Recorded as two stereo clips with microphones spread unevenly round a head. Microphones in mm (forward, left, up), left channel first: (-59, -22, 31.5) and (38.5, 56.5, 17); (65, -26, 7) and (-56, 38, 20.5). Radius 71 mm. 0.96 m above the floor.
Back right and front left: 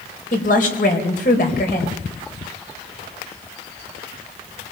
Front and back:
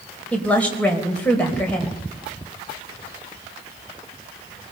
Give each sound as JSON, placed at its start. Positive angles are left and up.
{"t": 0.3, "sound": "a woman speaking", "azimuth_deg": -110, "distance_m": 4.0}